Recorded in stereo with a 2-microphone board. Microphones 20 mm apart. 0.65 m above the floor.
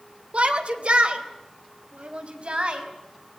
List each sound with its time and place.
0.3 s a shout: 70° right (ahead or behind), 3 m; by 2.9 s 65° right (ahead or behind), 5 m